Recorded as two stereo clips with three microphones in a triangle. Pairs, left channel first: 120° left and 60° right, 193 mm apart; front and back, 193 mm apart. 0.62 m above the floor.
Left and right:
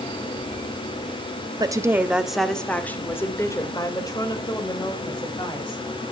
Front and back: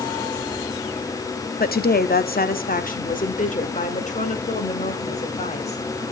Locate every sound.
1.6 s a woman speaking: straight ahead, 0.8 m; by 5.8 s 55° left, 3 m